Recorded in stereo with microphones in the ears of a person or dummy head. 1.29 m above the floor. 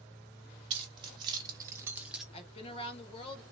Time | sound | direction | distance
0.7 | keys jangling | 30° right (ahead or behind) | 1.3 m
2.3 | a woman speaking | 30° left (ahead or behind) | 1.2 m